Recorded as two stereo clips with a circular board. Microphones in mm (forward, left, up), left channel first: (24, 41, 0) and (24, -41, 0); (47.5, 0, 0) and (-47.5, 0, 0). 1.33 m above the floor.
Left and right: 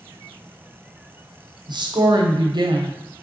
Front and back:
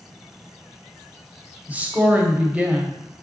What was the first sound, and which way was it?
A woman speaking, 105° right.